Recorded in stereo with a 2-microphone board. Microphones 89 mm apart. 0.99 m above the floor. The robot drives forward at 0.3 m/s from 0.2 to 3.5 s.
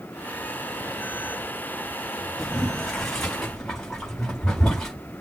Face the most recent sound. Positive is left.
turn(degrees=5)  # may be behind; listen again after turning